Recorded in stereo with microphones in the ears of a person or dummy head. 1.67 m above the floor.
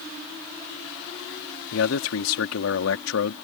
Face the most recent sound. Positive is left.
turn(degrees=80)